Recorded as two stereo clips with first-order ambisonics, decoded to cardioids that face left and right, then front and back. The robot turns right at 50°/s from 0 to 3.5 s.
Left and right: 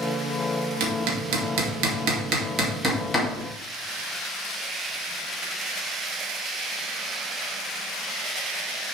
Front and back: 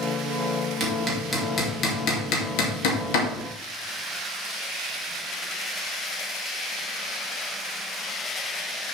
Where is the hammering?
115° right, 2 m; by 3.3 s 10° left, 2 m.